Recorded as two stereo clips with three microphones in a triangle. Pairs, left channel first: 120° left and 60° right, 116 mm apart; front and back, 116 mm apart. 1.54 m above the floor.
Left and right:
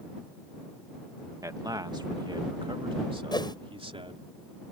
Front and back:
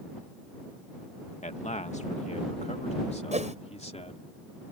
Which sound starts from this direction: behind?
A whoosh, at 3.3 s.